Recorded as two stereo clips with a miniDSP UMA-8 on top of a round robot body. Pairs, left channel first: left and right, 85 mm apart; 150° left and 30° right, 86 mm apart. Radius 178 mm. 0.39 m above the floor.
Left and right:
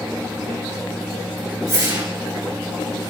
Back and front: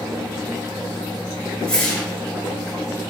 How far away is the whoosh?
About 5.5 m.